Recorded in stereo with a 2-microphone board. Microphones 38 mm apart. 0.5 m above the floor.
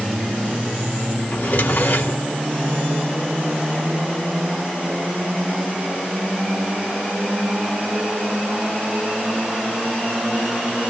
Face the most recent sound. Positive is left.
turn(degrees=65)  # may be behind; listen again after turning